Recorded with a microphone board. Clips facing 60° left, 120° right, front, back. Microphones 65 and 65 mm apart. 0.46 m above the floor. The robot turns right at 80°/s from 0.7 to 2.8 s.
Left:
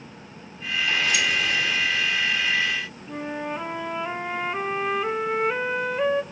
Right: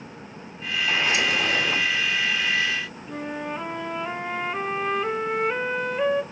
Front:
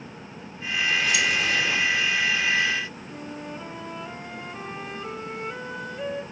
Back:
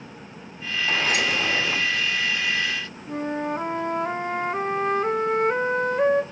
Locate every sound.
0.9 s a sliding door: 175° left, 0.7 m; by 1.8 s 105° right, 0.7 m
3.1 s a flute: 150° left, 0.5 m